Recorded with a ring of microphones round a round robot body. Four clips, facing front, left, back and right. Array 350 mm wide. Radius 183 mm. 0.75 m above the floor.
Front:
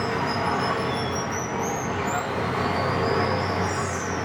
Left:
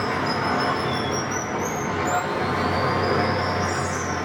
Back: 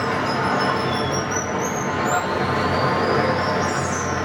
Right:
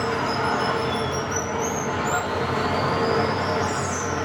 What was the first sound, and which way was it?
Running water, 175° left.